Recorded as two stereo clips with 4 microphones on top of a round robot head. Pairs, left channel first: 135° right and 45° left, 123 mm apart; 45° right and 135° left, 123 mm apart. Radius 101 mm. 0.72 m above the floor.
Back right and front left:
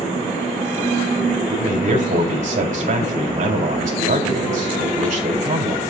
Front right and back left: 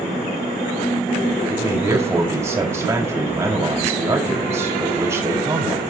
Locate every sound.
1.5 s a man speaking: 65° left, 5 m